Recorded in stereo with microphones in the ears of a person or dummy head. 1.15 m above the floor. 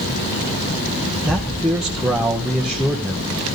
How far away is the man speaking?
About 0.7 m.